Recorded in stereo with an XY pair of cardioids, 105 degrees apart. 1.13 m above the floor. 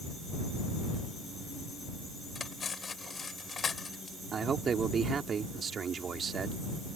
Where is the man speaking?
45° right.